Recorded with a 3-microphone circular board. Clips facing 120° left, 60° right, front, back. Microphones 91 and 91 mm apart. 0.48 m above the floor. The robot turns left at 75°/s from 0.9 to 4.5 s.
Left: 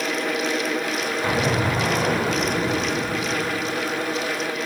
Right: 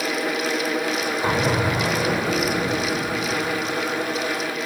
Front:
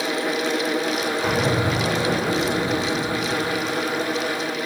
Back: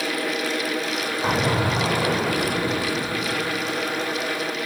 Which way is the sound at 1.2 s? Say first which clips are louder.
Right 1 dB, back 1 dB; 130° right.